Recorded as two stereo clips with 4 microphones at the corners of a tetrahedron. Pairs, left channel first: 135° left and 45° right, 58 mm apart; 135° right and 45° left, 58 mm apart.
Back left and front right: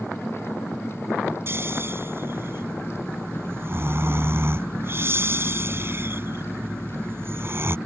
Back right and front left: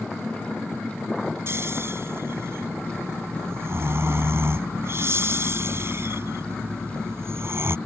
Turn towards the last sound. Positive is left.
turn(degrees=0)